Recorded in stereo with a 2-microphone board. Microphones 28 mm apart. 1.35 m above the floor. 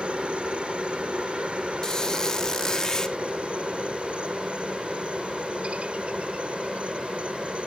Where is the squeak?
25° left (ahead or behind).